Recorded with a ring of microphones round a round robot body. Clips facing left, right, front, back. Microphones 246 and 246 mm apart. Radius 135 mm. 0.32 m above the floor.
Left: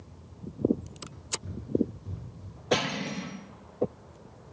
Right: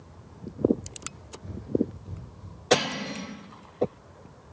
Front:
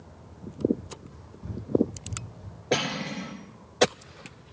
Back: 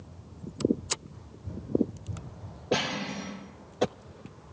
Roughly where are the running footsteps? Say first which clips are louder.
Even, front 2 dB; ahead left.